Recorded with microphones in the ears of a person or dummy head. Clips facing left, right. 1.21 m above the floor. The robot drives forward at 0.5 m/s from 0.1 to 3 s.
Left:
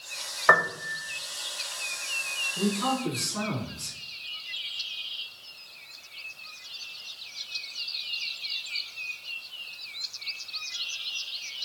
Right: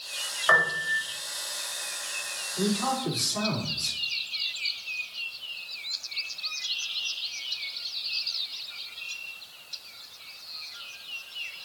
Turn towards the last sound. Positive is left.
turn(degrees=35)  # may be behind; listen again after turning